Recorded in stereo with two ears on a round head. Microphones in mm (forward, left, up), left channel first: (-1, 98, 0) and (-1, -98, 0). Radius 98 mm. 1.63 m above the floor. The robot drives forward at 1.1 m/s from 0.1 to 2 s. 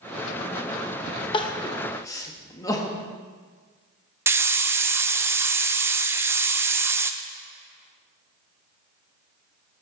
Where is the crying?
25° left (ahead or behind), 0.9 m; by 3.0 s 15° left (ahead or behind), 1.3 m.